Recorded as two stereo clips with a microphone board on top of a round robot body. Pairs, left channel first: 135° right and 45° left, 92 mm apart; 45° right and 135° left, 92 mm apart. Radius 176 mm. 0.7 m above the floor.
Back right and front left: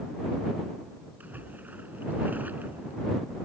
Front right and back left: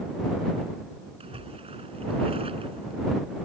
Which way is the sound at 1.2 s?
120° left.